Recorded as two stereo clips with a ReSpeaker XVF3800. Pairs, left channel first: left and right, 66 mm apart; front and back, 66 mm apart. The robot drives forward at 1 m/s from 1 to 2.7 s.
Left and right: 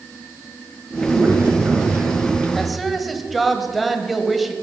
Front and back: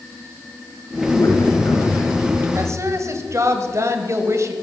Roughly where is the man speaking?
Ahead right.